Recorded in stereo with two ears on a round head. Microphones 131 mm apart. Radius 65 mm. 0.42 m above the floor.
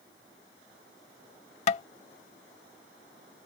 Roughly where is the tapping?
Left.